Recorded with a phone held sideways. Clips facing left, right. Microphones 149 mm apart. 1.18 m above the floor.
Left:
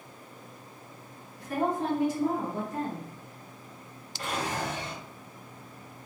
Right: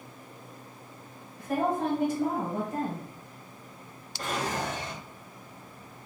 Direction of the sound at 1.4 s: 60° right (ahead or behind).